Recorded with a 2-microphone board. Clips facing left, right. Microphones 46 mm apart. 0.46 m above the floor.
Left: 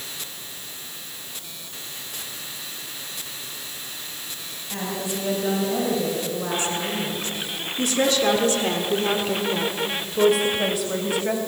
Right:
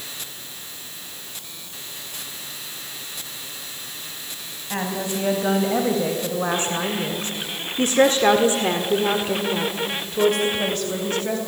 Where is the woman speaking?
40° right (ahead or behind), 4 m; by 11.4 s 15° left (ahead or behind), 3.5 m.